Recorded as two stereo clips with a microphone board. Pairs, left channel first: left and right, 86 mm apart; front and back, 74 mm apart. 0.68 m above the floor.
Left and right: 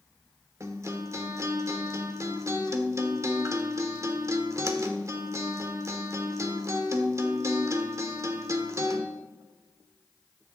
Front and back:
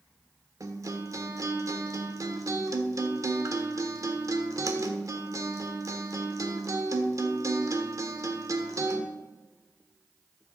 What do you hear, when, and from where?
0.6 s a guitar: 140° right, 1.3 m